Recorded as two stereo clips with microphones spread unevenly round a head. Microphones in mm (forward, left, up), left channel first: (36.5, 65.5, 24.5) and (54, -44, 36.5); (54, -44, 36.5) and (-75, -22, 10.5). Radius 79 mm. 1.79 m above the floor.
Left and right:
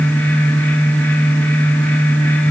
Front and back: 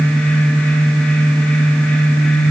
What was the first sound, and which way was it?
Only background noise.